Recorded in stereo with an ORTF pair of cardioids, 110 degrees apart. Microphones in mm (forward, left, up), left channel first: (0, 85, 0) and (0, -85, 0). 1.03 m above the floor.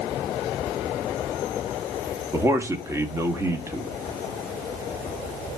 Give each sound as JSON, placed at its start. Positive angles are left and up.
{"t": 2.3, "sound": "a man speaking", "azimuth_deg": -15, "distance_m": 2.0}